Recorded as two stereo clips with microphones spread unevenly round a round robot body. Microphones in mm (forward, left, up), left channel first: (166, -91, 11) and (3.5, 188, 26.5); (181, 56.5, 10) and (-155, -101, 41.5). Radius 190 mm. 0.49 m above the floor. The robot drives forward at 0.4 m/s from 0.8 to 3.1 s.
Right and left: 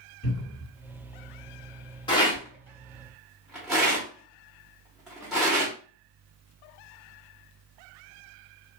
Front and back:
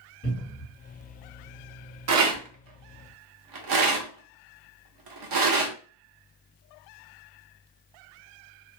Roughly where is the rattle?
Behind right.